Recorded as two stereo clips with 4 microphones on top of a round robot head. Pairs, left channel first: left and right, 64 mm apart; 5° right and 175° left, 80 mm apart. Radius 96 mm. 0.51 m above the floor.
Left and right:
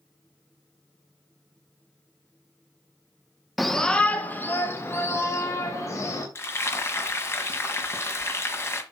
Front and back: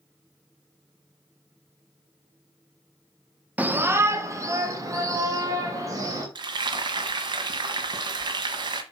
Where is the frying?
140° left, 1.6 m.